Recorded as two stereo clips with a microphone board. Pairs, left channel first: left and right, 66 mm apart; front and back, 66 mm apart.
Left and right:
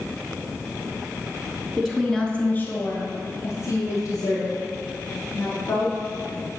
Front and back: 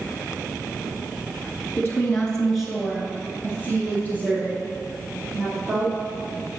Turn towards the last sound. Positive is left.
turn(degrees=120)